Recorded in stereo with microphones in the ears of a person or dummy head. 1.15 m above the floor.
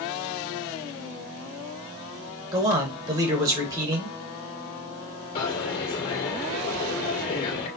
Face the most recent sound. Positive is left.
turn(degrees=45)  # may be behind; listen again after turning